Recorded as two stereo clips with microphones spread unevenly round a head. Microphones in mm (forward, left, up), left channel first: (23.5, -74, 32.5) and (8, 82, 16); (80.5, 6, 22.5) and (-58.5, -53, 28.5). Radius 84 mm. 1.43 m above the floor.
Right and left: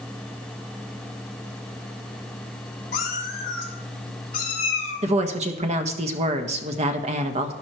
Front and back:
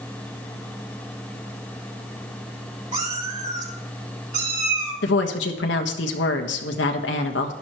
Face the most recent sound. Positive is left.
turn(degrees=45)